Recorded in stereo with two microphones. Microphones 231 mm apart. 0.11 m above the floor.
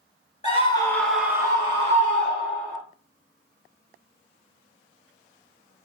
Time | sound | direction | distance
0.4 | a scream | 30° left (ahead or behind) | 1.3 m